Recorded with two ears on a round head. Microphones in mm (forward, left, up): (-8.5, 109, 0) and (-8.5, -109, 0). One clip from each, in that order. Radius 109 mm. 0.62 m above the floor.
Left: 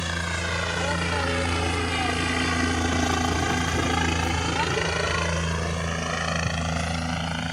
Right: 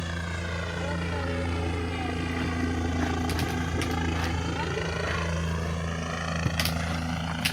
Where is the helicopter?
30° left (ahead or behind); by 7.5 s 20° left (ahead or behind).